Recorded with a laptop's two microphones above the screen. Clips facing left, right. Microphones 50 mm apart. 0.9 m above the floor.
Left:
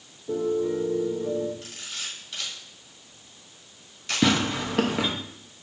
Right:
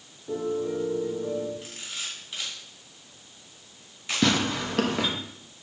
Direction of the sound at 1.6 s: 10° right (ahead or behind).